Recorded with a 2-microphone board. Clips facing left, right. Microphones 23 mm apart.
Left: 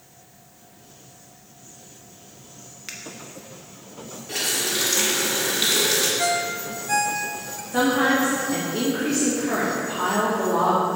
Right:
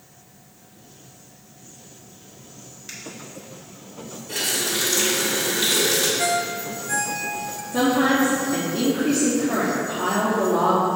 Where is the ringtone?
10° left (ahead or behind), 0.6 m.